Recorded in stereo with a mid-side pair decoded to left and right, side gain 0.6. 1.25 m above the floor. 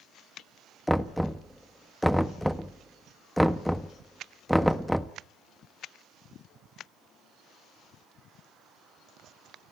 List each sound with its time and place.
0.9 s knocking: straight ahead, 1.1 m